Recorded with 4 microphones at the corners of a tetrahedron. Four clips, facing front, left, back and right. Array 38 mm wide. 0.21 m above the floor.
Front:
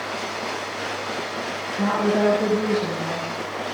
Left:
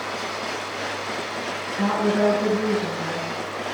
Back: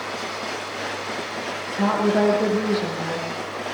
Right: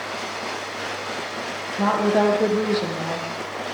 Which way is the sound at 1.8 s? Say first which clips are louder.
Right 2 dB, back 1 dB; 115° right.